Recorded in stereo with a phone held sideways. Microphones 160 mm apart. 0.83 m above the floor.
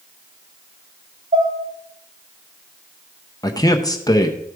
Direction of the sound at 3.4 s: 25° left (ahead or behind).